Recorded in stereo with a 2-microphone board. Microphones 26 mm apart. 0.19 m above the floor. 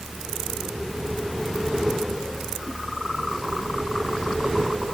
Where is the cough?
I don't hear a cough.